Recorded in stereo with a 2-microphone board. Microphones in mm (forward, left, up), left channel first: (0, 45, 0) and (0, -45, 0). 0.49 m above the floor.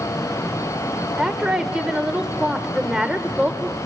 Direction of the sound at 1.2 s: 10° right (ahead or behind).